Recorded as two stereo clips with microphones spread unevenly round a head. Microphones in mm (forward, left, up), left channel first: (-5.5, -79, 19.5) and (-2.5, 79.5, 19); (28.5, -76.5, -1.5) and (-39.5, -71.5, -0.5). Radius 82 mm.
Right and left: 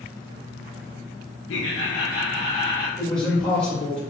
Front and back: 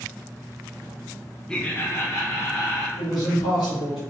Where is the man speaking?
5° right, 1.4 m.